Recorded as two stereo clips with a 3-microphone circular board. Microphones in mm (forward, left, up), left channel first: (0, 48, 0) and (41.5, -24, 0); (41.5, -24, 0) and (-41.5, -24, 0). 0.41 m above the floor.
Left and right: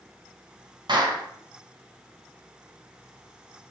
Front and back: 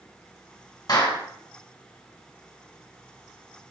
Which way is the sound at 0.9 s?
35° right.